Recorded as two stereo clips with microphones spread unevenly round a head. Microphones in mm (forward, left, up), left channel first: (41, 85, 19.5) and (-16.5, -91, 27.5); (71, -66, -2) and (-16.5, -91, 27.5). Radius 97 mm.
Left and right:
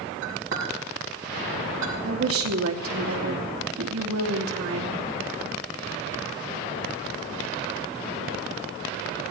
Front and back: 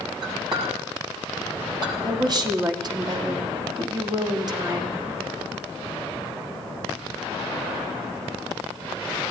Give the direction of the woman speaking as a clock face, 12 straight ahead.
4 o'clock.